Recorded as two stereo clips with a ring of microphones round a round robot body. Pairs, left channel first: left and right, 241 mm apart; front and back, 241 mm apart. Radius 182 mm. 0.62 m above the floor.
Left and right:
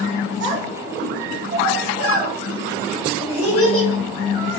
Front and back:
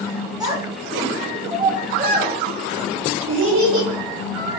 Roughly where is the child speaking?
Right.